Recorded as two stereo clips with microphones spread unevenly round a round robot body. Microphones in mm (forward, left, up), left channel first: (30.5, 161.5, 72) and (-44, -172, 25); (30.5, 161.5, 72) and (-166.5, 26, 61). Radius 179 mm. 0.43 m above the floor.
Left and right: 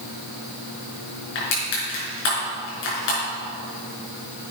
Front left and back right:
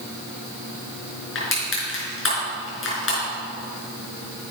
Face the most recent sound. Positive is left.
turn(degrees=65)